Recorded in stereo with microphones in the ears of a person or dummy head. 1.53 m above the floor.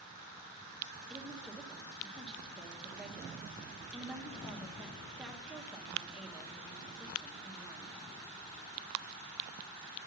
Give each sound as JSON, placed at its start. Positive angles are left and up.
{"t": 1.1, "sound": "a woman speaking", "side_deg": 0, "distance_m": 1.0}